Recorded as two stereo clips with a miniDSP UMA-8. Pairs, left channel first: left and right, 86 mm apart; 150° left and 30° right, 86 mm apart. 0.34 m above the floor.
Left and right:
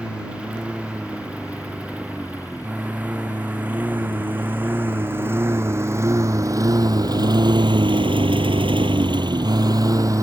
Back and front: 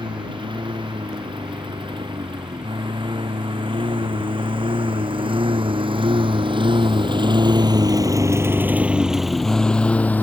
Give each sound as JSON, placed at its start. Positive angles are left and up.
{"t": 0.0, "sound": "a lawn mower", "azimuth_deg": -10}